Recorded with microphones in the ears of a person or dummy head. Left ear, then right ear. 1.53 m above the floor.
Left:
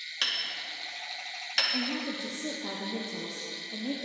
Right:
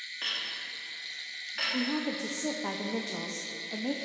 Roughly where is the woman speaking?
Right.